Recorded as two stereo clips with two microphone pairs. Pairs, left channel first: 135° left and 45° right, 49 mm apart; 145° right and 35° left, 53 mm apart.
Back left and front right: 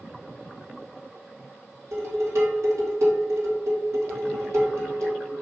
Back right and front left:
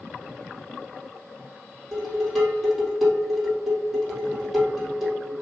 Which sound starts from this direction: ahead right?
Dishes clattering, at 1.9 s.